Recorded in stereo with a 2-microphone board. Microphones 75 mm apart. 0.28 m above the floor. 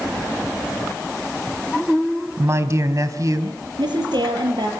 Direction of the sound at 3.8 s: 80° right.